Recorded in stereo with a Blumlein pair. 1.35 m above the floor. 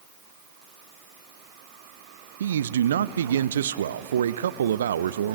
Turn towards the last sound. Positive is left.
turn(degrees=-65)